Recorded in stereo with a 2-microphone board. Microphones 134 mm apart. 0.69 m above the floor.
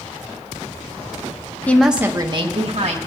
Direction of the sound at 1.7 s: 15° left (ahead or behind).